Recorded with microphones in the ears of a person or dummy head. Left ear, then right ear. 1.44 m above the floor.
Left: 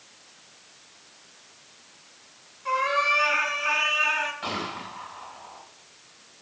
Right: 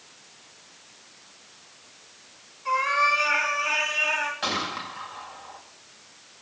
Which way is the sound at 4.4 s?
35° right (ahead or behind).